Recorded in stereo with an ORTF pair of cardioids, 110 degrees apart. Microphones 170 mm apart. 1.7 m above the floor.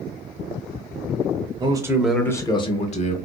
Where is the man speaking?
30° right, 0.7 m; by 3.2 s 45° left, 1.0 m.